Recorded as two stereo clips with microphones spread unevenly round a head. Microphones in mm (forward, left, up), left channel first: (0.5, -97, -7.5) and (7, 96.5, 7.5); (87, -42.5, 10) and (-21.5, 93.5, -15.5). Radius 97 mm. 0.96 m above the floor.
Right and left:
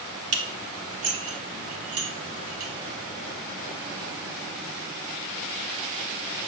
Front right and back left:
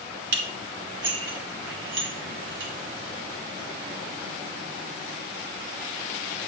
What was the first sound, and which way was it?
Dishes clattering, 105° left.